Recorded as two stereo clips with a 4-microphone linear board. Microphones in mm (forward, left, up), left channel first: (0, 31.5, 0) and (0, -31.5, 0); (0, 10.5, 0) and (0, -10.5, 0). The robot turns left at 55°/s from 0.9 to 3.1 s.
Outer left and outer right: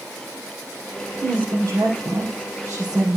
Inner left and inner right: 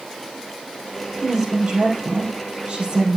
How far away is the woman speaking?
About 3.5 m.